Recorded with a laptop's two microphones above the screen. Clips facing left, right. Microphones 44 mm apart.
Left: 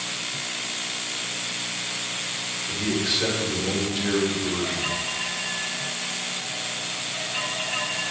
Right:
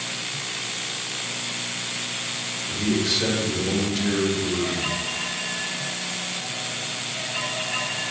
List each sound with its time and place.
2.7 s a man speaking: 10° left (ahead or behind), 1.8 m